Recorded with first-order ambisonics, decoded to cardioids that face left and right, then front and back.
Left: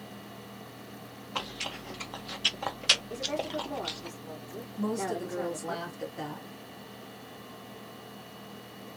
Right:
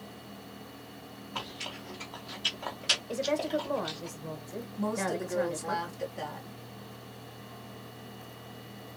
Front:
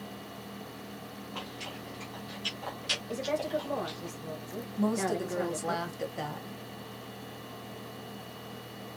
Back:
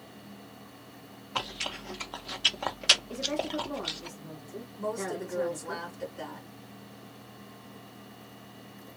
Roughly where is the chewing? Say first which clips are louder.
Left 3 dB, back 8 dB; behind left.